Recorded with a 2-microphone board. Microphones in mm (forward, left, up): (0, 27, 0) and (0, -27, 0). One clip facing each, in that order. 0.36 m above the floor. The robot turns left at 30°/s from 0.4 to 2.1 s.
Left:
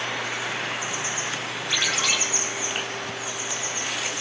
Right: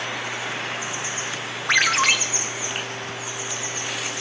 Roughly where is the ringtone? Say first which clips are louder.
Right 7 dB; right.